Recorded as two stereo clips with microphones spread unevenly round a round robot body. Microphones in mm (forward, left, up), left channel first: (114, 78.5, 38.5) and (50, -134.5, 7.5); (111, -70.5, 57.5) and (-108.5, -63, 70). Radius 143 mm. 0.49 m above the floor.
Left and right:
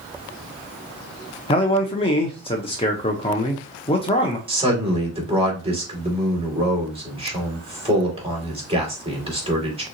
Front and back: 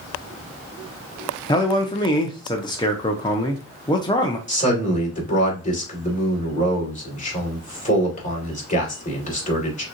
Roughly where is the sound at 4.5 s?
Ahead right.